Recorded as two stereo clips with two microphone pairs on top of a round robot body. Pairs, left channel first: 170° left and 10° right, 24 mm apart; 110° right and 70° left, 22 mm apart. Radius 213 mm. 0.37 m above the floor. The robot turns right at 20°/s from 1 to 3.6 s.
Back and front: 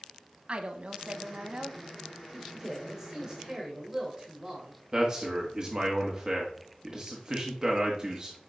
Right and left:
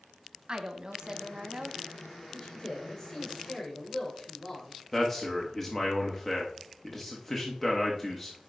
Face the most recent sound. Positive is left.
turn(degrees=-50)